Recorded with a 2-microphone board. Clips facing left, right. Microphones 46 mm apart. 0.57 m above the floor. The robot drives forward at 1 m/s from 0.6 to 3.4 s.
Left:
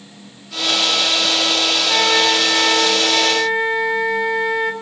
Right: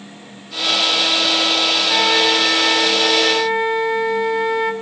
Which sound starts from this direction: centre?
A flute, at 1.9 s.